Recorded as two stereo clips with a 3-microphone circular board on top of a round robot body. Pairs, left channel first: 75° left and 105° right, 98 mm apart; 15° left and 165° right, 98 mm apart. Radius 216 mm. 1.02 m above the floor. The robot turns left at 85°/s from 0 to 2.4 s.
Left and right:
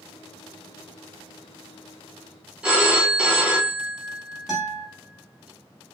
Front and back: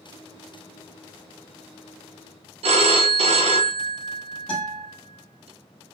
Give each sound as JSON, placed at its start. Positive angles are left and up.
{"t": 2.6, "sound": "a phone ringing", "azimuth_deg": 170, "distance_m": 0.6}
{"t": 4.5, "sound": "a guitar", "azimuth_deg": -20, "distance_m": 1.0}